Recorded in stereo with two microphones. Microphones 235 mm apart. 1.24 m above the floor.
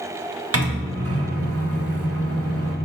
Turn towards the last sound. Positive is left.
turn(degrees=-80)